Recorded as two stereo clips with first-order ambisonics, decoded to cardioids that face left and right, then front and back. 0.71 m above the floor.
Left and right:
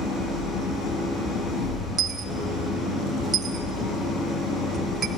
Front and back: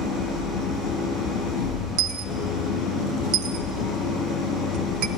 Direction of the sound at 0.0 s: 35° left.